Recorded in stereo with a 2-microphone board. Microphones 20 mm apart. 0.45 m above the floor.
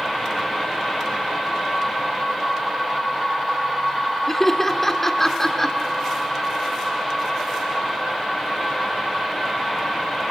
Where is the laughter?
20° left (ahead or behind), 1.4 m.